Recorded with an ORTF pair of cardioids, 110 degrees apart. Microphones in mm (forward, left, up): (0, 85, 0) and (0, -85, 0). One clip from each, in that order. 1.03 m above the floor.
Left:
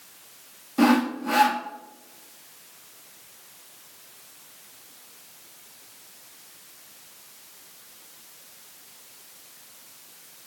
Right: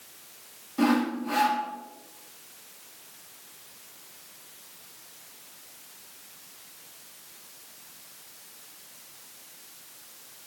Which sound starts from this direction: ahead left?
Sawing, at 0.8 s.